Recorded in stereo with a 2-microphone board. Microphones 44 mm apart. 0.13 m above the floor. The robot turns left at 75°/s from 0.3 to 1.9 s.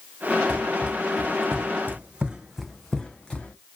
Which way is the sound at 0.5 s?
10° left (ahead or behind).